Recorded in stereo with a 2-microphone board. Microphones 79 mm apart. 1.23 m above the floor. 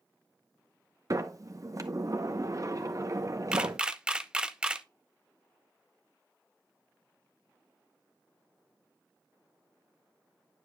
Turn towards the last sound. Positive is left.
turn(degrees=-10)  # may be behind; listen again after turning